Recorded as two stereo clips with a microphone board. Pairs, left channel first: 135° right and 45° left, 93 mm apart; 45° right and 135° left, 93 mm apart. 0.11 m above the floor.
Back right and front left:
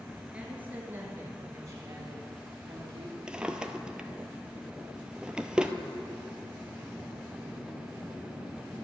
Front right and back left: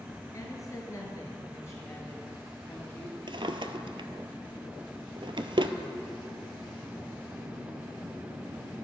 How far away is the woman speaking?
About 1.9 m.